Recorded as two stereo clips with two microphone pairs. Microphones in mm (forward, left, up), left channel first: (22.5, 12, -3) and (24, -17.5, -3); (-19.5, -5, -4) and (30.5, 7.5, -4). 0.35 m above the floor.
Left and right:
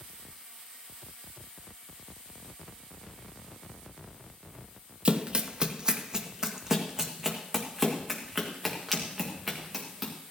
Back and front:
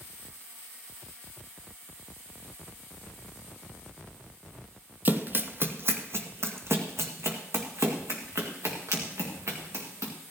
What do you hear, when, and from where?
5.0 s running footsteps: 40° right, 0.8 m; by 10.1 s 5° right, 3 m